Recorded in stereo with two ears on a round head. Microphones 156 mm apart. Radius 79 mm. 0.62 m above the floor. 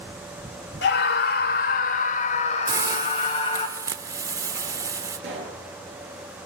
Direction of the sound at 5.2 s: 65° right (ahead or behind).